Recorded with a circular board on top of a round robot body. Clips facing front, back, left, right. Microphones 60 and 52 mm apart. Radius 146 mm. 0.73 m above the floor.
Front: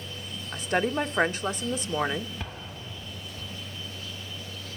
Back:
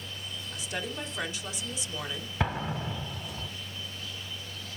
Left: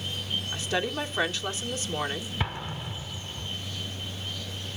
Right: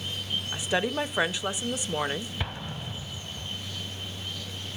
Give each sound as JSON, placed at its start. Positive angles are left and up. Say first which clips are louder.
{"t": 0.5, "sound": "a woman speaking", "louder": "front 11 dB, right 3 dB", "azimuth_deg": -15, "distance_m": 1.4}
{"t": 2.4, "sound": "an explosion", "louder": "back 8 dB, left 2 dB", "azimuth_deg": 175, "distance_m": 1.4}